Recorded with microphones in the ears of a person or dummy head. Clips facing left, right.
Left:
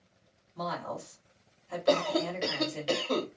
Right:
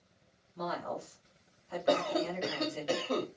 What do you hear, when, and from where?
0.6 s a woman speaking: 70° left (ahead or behind), 1.6 m
1.9 s a cough: 45° left (ahead or behind), 1.4 m